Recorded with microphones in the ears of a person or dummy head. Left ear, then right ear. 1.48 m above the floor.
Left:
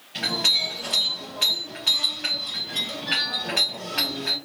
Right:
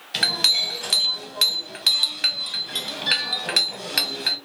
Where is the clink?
65° right (ahead or behind), 1.1 m.